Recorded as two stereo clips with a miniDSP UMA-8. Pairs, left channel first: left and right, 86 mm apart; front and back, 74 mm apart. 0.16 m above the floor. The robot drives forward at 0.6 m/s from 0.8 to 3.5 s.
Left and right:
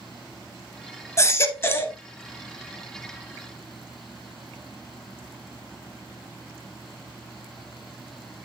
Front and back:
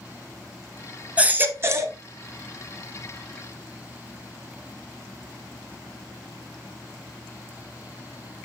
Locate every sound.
1.2 s a baby crying: 120° left, 0.7 m; by 2.0 s 150° left, 1.0 m